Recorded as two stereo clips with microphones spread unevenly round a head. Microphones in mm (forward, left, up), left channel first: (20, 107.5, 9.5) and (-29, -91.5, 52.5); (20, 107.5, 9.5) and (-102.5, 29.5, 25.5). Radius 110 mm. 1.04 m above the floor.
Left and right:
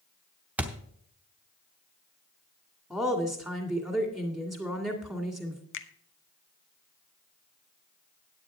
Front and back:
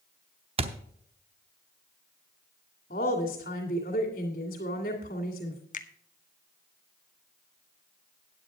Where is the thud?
175° right, 0.8 m.